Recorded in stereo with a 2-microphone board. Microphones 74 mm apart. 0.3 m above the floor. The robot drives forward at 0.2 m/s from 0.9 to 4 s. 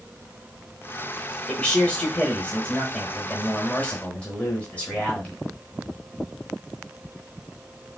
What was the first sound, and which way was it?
A man speaking, 15° left (ahead or behind).